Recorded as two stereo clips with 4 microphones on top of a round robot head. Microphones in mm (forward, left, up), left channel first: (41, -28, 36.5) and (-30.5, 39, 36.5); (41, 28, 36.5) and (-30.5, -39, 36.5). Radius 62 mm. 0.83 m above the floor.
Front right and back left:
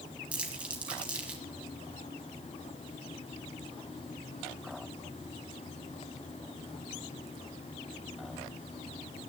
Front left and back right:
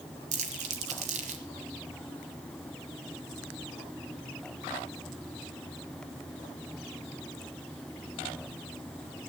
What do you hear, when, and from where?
0.3 s crumpling: 145° right, 1.5 m